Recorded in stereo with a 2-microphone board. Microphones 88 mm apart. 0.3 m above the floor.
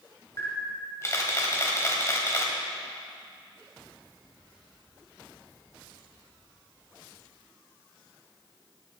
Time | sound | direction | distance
0.4 | a camera shutter | 35° left (ahead or behind) | 1.7 m